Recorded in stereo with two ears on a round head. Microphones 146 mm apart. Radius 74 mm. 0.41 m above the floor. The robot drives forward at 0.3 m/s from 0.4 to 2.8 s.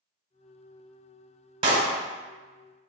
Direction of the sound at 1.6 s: 35° right (ahead or behind).